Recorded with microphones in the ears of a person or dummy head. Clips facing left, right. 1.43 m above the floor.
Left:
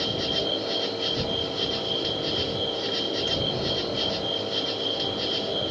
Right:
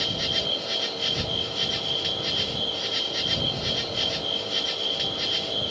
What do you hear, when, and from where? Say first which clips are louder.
0.0 s an insect: left 4 dB; 30° right (ahead or behind)